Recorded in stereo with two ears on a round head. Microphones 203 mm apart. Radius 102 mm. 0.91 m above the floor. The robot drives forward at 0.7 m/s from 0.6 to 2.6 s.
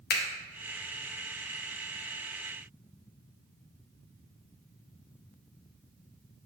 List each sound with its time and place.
0.1 s a finger snap: 45° left (ahead or behind), 0.6 m